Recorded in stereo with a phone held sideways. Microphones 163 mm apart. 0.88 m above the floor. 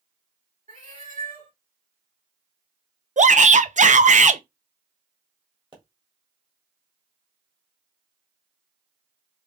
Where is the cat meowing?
50° right (ahead or behind), 3 m.